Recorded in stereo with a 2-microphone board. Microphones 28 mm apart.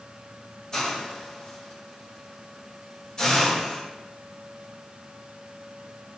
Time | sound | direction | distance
0.7 | a hiss | 25° left (ahead or behind) | 3 m